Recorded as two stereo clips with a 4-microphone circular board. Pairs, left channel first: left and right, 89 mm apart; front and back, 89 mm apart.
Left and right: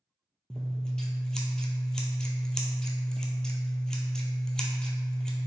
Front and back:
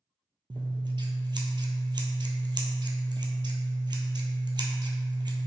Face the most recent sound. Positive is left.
turn(degrees=170)